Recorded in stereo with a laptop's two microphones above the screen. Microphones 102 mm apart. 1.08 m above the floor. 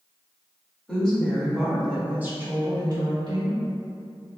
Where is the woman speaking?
10° left (ahead or behind), 2.0 m; by 3.6 s 60° right (ahead or behind), 1.2 m.